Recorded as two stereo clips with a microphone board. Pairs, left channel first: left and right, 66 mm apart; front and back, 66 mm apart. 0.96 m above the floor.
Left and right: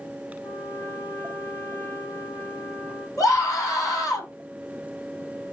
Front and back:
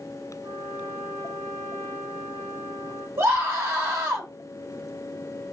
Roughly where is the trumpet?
Behind left.